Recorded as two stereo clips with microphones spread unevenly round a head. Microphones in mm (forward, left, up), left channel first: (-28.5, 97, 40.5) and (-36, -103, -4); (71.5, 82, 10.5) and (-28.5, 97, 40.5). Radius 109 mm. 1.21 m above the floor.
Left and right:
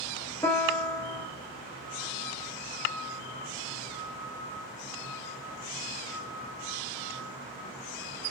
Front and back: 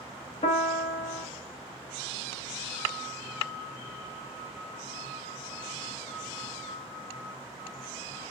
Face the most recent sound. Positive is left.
turn(degrees=5)